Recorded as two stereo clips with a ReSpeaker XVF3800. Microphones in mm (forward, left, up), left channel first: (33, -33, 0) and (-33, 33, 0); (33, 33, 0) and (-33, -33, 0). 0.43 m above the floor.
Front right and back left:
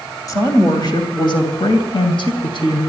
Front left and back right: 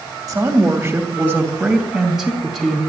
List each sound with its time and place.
0.3 s a woman speaking: 90° right, 3 m; by 2.8 s 45° right, 3.5 m